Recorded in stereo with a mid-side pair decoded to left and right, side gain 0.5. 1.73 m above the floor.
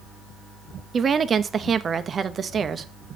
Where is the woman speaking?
40° right, 0.7 m.